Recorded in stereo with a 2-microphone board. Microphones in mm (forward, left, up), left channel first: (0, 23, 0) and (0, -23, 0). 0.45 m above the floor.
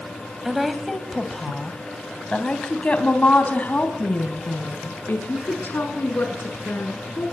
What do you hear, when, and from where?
0.5 s a woman speaking: 5° right (ahead or behind), 3 m; by 7.2 s 55° left (ahead or behind), 6 m